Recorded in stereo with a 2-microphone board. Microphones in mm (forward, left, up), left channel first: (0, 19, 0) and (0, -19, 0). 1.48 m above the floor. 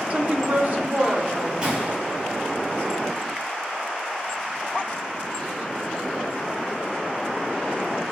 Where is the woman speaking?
35° right (ahead or behind), 0.7 m; by 1.5 s 45° right (ahead or behind), 1.7 m.